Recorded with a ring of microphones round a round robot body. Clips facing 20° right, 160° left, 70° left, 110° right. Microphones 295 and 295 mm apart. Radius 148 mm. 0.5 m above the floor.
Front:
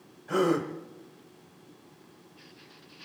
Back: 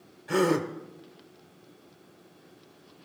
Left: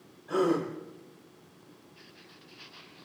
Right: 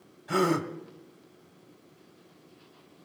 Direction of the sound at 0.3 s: 140° right.